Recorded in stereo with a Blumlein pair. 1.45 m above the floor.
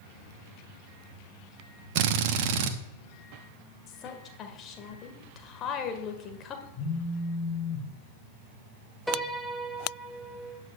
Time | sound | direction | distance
1.9 | a drill | 50° right | 1.1 m
3.9 | a woman speaking | 30° left | 1.7 m
6.7 | a phone buzzing | 25° left | 5 m
9.1 | a piano | straight ahead | 1.0 m